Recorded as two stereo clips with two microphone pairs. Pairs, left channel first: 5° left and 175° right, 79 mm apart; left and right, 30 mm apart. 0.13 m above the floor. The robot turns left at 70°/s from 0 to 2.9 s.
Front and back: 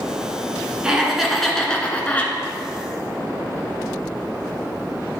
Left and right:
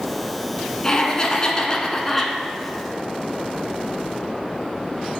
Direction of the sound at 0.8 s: 125° left.